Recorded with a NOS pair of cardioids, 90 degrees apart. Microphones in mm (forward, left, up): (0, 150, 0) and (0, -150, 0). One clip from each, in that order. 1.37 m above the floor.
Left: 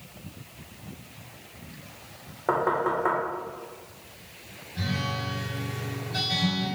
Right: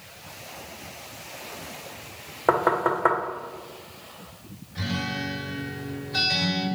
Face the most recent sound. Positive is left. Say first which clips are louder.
# right 1 dB
turn(degrees=-30)